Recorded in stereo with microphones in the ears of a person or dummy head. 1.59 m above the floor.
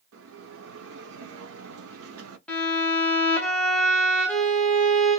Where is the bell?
70° right (ahead or behind), 0.6 m.